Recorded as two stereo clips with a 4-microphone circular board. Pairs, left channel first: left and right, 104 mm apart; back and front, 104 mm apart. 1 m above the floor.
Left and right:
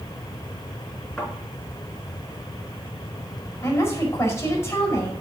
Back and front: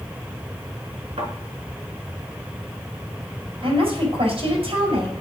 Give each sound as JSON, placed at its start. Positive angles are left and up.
{"t": 1.2, "sound": "a thud", "azimuth_deg": 10, "distance_m": 5.0}
{"t": 3.6, "sound": "a woman speaking", "azimuth_deg": 25, "distance_m": 4.5}